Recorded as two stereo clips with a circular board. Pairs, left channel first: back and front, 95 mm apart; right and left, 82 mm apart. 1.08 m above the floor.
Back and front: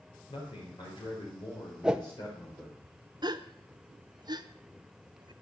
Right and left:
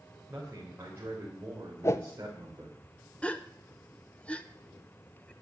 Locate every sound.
0.3 s a man speaking: 155° left, 4 m; by 2.8 s 140° left, 3 m
1.8 s a whoosh: 75° right, 0.8 m
3.2 s a gasp: 20° right, 0.8 m